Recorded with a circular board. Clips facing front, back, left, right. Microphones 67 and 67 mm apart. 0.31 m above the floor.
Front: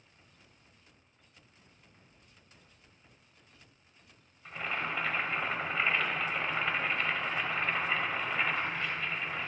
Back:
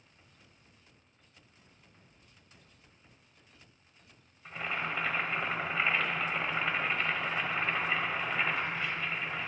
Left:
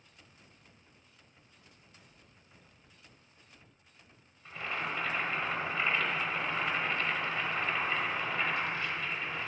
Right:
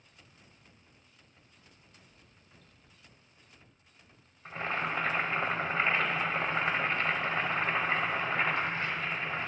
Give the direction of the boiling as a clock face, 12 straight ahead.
3 o'clock.